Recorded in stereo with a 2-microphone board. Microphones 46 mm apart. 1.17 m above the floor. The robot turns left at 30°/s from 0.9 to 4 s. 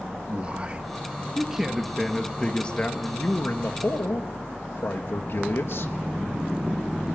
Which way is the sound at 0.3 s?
150° right.